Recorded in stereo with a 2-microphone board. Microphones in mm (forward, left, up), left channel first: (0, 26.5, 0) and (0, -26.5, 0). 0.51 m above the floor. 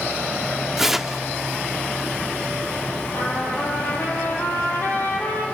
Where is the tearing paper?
10° right (ahead or behind), 1.0 m.